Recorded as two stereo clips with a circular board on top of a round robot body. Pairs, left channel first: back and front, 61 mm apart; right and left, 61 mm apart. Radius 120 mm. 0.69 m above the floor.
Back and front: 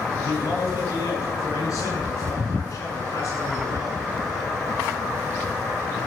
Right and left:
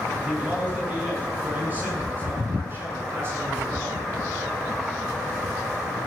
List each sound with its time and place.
0.2 s a man speaking: 160° left, 9.5 m; by 4.1 s 135° left, 7.5 m